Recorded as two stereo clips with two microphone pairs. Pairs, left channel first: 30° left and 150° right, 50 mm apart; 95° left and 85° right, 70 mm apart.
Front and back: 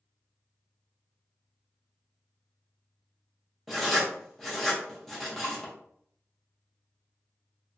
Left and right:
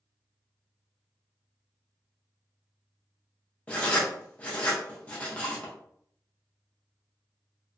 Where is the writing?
110° left, 0.8 m.